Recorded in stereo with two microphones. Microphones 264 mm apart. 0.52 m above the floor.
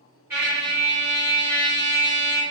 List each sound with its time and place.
0.3 s a trumpet: 10° right (ahead or behind), 1.7 m